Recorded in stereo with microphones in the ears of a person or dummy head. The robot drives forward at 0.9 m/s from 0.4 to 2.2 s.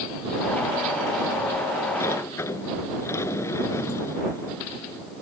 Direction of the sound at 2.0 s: 20° left (ahead or behind).